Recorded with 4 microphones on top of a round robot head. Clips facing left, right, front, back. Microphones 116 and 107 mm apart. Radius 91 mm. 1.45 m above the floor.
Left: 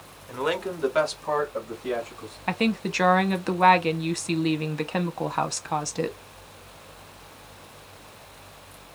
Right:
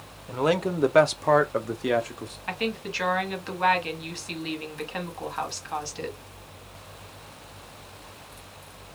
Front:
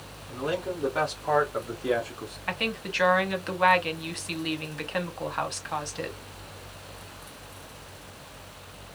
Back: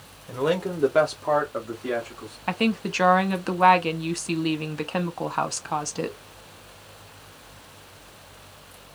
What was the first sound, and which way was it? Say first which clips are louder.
A man speaking: right 3 dB, back 6 dB; 155° right.